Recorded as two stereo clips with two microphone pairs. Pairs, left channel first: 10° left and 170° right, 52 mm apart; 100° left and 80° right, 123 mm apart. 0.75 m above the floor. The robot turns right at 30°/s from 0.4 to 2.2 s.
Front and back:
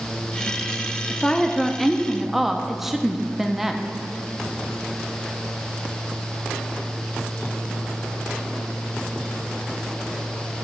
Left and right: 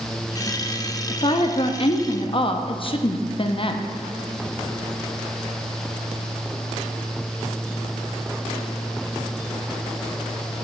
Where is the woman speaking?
75° left, 0.6 m; by 3.8 s 110° left, 0.6 m.